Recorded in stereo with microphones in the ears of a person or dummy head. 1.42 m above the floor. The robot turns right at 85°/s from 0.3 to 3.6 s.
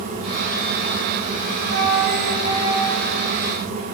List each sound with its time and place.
1.7 s a flute: 105° right, 1.1 m; by 3.3 s 30° left, 1.1 m